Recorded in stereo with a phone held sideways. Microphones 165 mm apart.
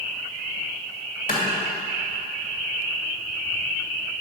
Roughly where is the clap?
Left.